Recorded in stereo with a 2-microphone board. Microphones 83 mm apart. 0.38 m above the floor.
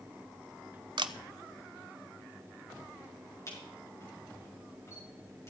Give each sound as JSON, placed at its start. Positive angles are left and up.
{"t": 1.0, "sound": "a camera shutter", "side_deg": -65, "distance_m": 0.5}
{"t": 3.5, "sound": "a camera shutter", "side_deg": 35, "distance_m": 6.0}